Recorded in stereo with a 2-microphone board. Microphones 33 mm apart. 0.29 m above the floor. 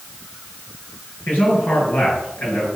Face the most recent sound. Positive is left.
turn(degrees=65)  # may be behind; listen again after turning